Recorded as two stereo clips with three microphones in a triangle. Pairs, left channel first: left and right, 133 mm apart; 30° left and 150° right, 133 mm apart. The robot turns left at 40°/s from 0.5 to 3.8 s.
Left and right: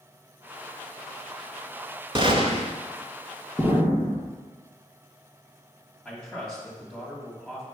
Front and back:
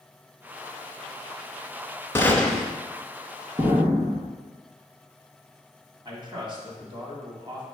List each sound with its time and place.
2.1 s a gunshot: 45° right, 0.8 m; by 2.7 s 65° right, 0.8 m
3.6 s an explosion: 165° left, 2 m; by 4.3 s 155° left, 2 m
6.0 s a man speaking: 175° left, 1.8 m